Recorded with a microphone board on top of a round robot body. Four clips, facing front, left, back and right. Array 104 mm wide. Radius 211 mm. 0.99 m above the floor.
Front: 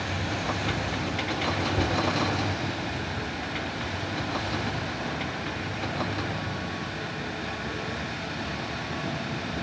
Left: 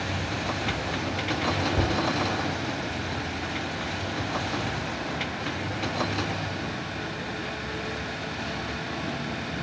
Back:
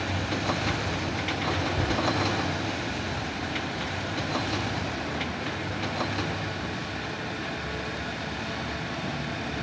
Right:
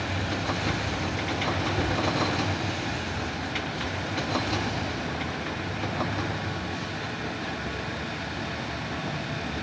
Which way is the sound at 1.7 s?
90° left.